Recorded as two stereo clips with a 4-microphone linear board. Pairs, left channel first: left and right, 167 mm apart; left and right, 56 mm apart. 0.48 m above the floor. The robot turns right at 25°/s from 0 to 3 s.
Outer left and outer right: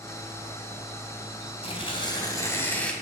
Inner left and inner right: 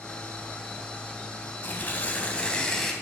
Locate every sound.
1.6 s tearing paper: 140° left, 3 m; by 2.9 s 175° left, 3 m